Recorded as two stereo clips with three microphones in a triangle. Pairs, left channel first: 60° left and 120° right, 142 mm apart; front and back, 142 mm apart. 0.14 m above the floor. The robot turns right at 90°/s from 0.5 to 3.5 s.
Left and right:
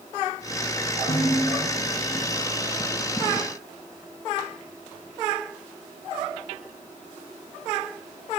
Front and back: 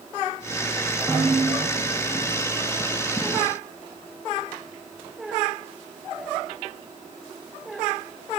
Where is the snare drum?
90° left, 9 m; by 1.6 s 140° left, 9 m.